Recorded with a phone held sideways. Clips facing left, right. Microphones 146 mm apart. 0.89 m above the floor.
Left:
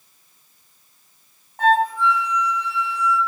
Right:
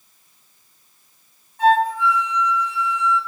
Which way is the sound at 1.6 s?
65° left (ahead or behind).